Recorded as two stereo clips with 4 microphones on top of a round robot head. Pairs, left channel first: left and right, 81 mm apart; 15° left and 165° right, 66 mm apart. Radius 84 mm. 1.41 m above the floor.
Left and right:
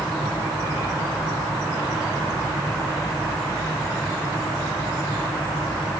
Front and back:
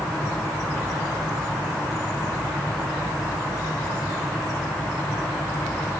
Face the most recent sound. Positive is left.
No sound to turn to.